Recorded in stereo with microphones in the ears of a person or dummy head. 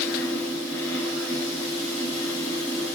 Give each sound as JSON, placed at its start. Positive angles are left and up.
{"t": 0.0, "sound": "a fan", "side_deg": 15, "distance_m": 5.0}